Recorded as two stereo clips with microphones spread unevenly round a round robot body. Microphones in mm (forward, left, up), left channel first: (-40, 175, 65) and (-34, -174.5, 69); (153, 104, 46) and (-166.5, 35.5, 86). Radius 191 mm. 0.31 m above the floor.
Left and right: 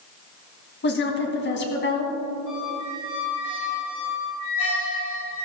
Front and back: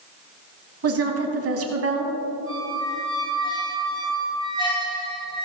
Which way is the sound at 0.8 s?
145° left.